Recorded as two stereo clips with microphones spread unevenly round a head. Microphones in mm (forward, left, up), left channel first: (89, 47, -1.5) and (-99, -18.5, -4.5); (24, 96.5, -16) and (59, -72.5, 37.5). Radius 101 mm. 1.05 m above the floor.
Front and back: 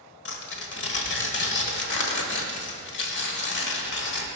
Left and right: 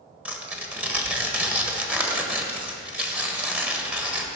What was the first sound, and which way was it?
Tearing paper, 5° right.